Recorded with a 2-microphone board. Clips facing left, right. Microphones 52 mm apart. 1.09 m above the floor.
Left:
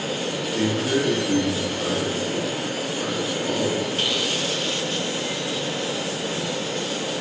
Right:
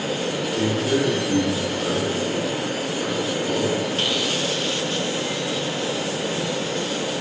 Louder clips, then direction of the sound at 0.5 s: Even; 50° left (ahead or behind).